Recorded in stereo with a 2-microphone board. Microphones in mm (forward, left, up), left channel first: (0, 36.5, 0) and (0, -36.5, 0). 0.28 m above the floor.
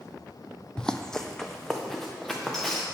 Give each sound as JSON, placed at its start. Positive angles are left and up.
{"t": 0.8, "sound": "running footsteps", "side_deg": 10, "distance_m": 0.5}